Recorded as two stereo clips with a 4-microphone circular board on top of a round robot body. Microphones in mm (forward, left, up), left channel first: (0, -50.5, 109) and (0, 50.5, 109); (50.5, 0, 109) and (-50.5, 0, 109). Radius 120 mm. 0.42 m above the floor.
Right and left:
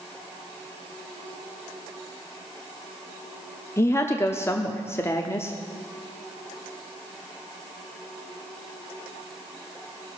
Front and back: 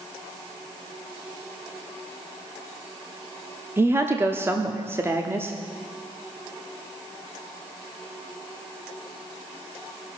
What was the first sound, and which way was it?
A woman speaking, 130° right.